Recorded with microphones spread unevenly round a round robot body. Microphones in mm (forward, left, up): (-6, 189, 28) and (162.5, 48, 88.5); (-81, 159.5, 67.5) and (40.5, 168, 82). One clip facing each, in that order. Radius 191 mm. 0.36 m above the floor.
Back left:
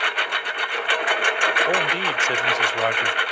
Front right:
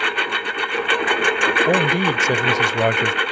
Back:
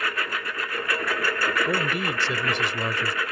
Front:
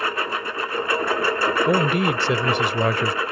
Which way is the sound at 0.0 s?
75° right.